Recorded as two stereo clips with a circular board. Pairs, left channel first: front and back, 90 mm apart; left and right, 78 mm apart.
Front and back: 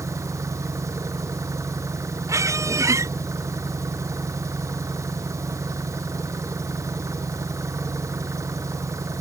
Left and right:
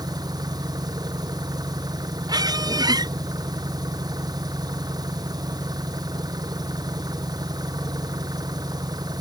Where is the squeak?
125° right.